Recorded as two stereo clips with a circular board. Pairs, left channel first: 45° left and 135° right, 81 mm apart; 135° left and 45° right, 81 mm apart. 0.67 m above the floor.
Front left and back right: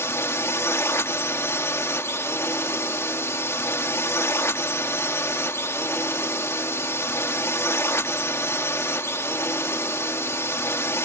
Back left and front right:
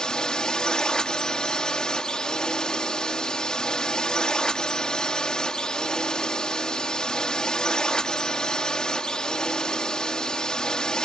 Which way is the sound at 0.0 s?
65° left.